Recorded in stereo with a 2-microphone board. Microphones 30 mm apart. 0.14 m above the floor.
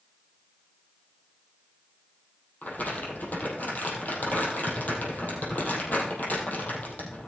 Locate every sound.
2.6 s crumpling: 75° left (ahead or behind), 3.5 m